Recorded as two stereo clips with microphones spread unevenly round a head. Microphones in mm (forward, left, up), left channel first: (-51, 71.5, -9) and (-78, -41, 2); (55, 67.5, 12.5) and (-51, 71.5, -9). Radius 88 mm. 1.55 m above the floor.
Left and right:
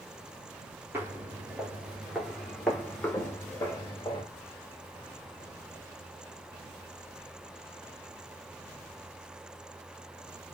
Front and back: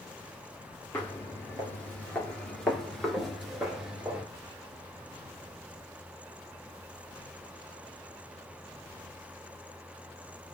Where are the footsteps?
45° right, 2.0 m; by 4.2 s 90° left, 1.7 m.